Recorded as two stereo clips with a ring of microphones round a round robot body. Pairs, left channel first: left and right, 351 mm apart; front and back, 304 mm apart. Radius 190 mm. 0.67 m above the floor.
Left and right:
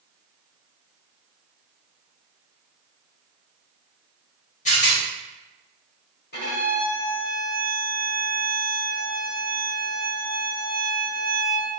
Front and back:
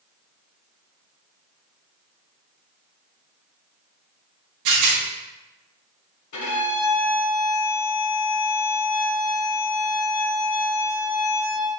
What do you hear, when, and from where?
4.7 s a rattle: 160° left, 1.0 m
6.3 s a violin: 25° left, 1.6 m